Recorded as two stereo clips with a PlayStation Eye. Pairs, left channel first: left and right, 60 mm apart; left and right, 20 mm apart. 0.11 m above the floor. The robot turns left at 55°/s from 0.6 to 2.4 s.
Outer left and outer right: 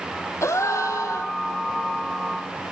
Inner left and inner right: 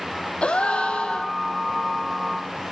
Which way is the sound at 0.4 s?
115° left.